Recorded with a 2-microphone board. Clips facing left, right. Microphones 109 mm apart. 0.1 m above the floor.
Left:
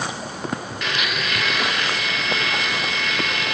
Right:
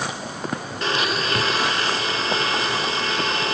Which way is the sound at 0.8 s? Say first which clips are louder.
Right 6 dB; 35° right (ahead or behind).